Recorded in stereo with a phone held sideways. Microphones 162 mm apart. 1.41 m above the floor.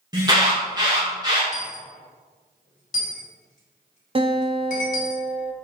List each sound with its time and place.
0.1 s an alarm: 25° right (ahead or behind), 2.5 m
1.5 s a dropped coin: 55° left (ahead or behind), 2.5 m
4.2 s a guitar: 35° right (ahead or behind), 0.8 m